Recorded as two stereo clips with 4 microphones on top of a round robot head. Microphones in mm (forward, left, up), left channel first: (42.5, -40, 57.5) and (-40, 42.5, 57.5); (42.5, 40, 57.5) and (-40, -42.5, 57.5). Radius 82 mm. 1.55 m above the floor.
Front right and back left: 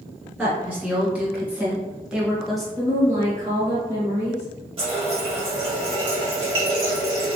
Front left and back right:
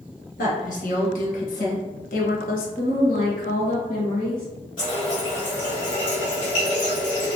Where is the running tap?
95° left, 1.2 m.